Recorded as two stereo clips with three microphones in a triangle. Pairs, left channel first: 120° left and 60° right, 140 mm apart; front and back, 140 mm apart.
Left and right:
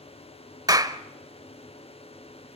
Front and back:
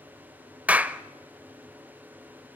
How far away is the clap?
About 0.8 m.